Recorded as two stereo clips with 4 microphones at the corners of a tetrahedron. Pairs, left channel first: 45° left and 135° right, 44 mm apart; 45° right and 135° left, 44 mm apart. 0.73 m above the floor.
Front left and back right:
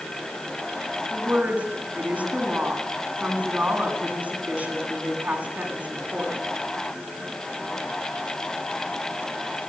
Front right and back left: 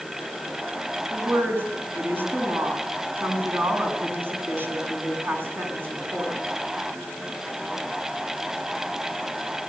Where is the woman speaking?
170° left, 8 m.